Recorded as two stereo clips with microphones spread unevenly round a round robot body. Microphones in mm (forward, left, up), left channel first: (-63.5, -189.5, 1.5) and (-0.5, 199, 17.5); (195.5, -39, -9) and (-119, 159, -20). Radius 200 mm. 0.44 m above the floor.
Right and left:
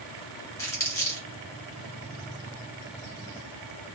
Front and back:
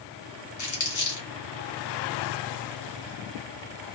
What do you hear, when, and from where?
0.6 s crumpling: 25° right, 1.5 m